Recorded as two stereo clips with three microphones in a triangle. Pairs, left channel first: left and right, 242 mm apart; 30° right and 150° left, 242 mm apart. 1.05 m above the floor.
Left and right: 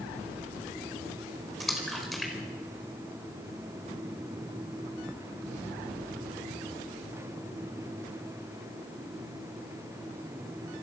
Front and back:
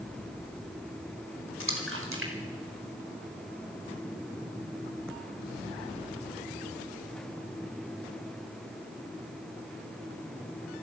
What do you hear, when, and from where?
1.6 s a splash: straight behind, 4.5 m